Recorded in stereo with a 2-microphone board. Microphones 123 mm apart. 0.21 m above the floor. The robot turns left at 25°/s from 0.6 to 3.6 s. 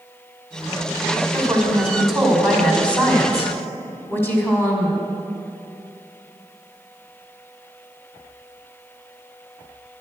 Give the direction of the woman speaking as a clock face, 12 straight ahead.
5 o'clock.